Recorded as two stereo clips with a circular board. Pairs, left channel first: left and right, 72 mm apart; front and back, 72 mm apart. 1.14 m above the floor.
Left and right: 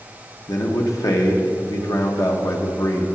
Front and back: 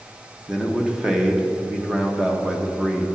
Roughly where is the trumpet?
I don't hear a trumpet.